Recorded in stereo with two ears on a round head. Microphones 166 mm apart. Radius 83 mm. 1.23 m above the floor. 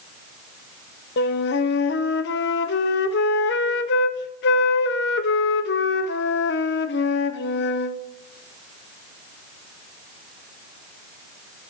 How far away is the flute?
About 0.5 m.